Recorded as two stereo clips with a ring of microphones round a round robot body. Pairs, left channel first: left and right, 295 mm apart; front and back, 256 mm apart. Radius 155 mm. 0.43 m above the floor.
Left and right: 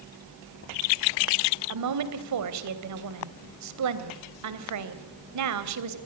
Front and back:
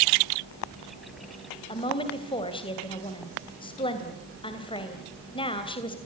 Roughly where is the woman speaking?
Right.